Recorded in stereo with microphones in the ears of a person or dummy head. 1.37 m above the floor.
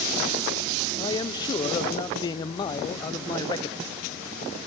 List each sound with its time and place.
1.0 s a man speaking: 25° left (ahead or behind), 0.6 m